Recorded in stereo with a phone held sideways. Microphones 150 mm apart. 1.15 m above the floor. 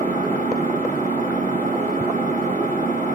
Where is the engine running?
55° right (ahead or behind), 3 m.